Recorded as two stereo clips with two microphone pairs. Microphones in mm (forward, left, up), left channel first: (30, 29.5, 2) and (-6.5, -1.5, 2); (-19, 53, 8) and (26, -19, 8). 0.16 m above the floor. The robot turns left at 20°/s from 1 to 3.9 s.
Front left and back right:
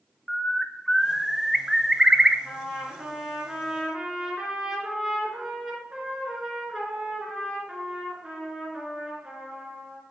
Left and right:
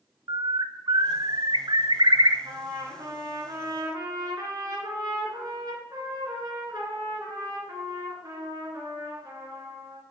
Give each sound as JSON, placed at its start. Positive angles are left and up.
{"t": 0.3, "sound": "a bird", "azimuth_deg": -40, "distance_m": 0.7}
{"t": 2.5, "sound": "a trumpet", "azimuth_deg": -35, "distance_m": 2.5}